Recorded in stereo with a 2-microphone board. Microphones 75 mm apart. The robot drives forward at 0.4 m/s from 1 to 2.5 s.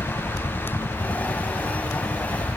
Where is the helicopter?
70° left (ahead or behind).